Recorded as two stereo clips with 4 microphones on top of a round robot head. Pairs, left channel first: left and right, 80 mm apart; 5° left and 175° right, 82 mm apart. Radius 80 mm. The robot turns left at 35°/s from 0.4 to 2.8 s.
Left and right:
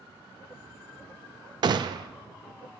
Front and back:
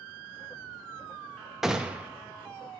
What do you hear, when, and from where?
1.6 s a gunshot: 90° right, 0.5 m; by 2.1 s 105° right, 0.5 m